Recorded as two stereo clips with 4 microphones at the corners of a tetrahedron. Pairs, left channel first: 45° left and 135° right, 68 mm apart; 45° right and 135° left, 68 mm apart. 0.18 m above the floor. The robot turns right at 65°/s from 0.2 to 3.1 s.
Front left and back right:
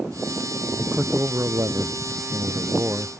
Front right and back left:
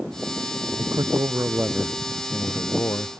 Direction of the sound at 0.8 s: 140° left.